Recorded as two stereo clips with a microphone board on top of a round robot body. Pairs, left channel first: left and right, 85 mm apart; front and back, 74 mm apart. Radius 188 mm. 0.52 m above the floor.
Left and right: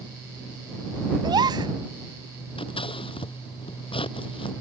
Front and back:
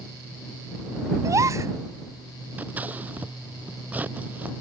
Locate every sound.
1.2 s a gasp: 130° right
2.6 s scissors: 110° left